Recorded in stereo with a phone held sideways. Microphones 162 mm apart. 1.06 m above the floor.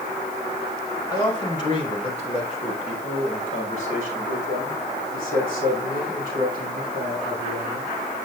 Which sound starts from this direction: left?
A man speaking, at 1.1 s.